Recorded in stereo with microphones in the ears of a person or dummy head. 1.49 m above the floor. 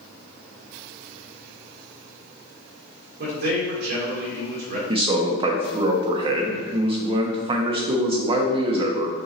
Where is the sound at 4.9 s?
30° right (ahead or behind), 0.7 m.